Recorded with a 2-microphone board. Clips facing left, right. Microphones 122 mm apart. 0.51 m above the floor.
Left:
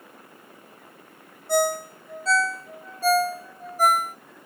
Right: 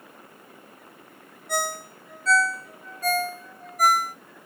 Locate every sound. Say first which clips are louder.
1.5 s a ringtone: left 7 dB; 30° left (ahead or behind), 0.8 m